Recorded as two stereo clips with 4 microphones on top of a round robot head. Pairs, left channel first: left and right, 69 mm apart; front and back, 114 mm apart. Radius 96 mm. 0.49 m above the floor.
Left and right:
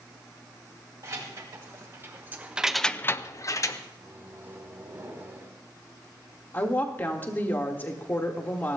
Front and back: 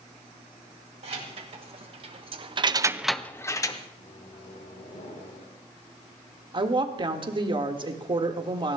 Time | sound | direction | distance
1.0 | keys jangling | 140° right | 2.5 m
4.0 | a microwave | 30° right | 4 m
6.5 | a woman speaking | 145° left | 1.6 m